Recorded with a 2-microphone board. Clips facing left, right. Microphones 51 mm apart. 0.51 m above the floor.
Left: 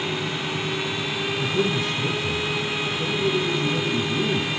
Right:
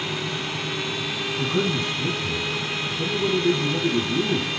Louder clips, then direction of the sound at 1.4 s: Even; 75° right (ahead or behind).